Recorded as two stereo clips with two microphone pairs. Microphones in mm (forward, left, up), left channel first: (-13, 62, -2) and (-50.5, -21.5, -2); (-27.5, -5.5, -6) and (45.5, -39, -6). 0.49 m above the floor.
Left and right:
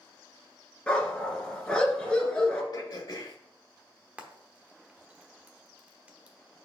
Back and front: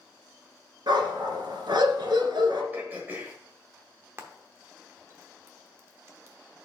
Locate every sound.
0.9 s a dog barking: 10° right, 1.7 m
2.7 s throat clearing: 40° left, 1.3 m
4.2 s frying: 50° right, 0.9 m